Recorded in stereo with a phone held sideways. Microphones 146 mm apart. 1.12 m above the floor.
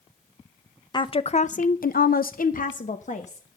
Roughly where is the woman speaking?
Left.